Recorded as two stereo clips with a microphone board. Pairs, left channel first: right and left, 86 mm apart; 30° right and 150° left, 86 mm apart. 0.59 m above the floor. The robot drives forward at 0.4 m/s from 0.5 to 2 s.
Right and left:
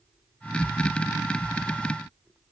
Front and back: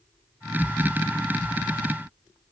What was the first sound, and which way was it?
Only background noise.